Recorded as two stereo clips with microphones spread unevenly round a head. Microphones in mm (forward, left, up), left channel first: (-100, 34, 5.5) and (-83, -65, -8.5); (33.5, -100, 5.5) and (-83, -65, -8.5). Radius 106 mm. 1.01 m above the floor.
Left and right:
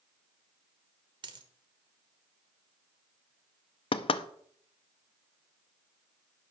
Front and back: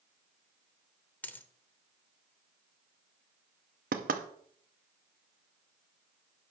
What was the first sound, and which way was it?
A dropped coin, 70° right.